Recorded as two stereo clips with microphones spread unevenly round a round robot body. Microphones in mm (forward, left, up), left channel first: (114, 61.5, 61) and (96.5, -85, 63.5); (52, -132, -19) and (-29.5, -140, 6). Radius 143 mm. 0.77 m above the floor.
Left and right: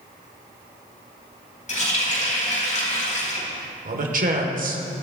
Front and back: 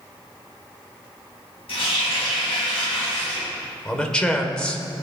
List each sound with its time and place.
1.7 s a running tap: 45° left, 3.5 m
3.9 s a man speaking: 75° right, 2 m